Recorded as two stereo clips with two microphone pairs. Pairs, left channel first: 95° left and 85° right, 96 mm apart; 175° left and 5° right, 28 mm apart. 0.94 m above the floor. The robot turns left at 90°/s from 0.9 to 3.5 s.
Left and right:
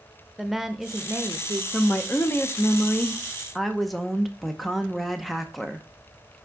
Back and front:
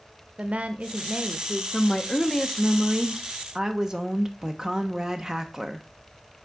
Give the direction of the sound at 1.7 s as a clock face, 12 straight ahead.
7 o'clock.